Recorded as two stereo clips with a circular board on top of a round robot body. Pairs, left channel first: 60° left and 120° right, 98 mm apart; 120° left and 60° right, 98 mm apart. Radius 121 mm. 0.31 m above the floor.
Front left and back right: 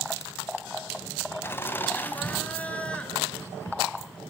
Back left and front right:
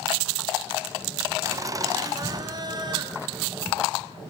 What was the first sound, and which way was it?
Laughter, 5° right.